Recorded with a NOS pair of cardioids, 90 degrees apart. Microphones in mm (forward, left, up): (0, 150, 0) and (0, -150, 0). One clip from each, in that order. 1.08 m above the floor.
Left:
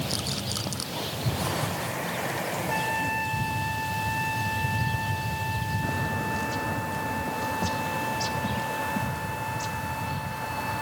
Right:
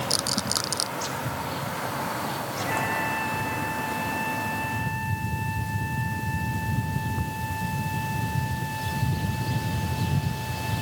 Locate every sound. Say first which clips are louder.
0.1 s a rattle: right 5 dB; 45° right
2.7 s a trumpet: right 2 dB; 15° left